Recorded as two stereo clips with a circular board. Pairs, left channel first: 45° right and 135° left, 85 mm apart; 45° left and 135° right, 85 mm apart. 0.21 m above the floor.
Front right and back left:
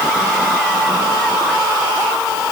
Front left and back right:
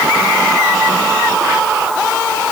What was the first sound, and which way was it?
Only background noise.